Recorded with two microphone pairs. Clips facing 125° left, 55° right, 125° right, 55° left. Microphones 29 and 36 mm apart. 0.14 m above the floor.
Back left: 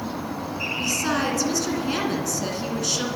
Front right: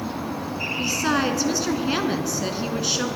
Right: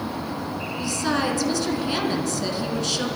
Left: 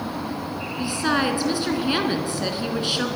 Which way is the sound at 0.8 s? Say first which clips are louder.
Front right 2 dB, left 2 dB; 15° left.